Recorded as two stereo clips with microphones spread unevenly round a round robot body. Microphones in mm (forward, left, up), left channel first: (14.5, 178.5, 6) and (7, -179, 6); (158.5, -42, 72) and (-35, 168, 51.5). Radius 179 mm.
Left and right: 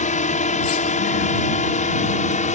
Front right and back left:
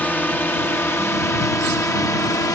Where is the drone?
40° left; by 2.6 s 30° left.